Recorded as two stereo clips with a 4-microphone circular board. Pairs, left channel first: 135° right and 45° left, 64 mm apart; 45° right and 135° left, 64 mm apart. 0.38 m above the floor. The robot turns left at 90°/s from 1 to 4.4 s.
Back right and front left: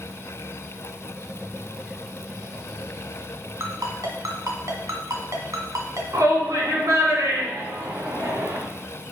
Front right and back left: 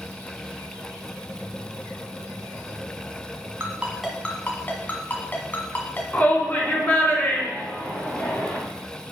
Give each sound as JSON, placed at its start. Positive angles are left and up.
{"t": 3.6, "sound": "a ringtone", "azimuth_deg": 85, "distance_m": 1.8}
{"t": 6.1, "sound": "a shout", "azimuth_deg": 20, "distance_m": 4.0}